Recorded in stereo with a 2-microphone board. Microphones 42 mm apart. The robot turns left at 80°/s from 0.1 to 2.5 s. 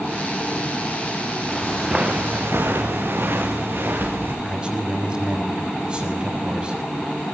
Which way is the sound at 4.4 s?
20° right (ahead or behind).